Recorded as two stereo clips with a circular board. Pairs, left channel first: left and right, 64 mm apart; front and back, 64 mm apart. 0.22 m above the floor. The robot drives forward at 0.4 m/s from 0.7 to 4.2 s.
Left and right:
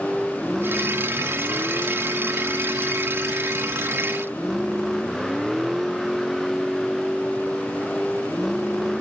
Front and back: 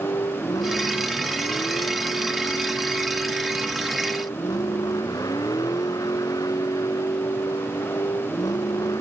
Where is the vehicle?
Straight ahead.